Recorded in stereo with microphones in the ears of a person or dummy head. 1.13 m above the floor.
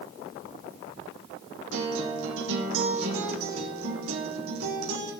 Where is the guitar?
75° right (ahead or behind), 2.5 m.